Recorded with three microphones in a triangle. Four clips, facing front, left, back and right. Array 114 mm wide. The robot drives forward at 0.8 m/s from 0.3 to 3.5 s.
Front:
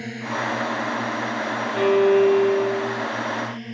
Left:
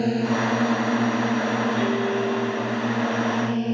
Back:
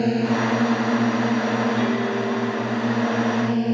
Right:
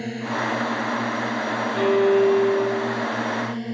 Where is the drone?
150° left; by 3.8 s 160° left.